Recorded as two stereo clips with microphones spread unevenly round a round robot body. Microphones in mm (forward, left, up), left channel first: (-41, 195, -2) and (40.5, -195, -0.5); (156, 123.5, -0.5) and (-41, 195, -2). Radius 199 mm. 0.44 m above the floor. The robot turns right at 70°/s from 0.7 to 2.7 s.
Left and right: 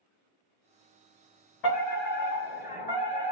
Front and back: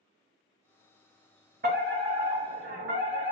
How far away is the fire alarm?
About 5 m.